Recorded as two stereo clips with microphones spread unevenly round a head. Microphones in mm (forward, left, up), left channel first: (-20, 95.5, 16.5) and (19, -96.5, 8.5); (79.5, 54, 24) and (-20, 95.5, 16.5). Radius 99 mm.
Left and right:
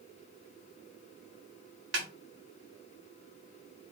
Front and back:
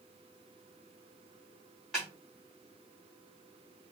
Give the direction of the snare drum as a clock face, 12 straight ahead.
4 o'clock.